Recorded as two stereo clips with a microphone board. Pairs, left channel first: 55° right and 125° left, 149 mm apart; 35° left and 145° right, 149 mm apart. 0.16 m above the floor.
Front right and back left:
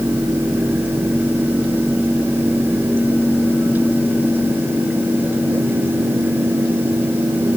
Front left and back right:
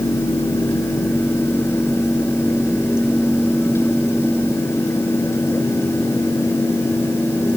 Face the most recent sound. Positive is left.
No sound to turn to.